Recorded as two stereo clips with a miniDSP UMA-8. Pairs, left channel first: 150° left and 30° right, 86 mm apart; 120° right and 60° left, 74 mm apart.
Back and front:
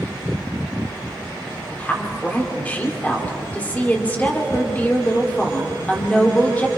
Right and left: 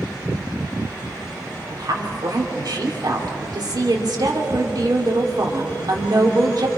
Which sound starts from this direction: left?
A woman speaking, at 1.7 s.